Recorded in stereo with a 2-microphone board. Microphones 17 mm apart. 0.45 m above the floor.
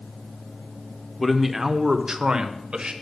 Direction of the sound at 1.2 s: 5° left (ahead or behind).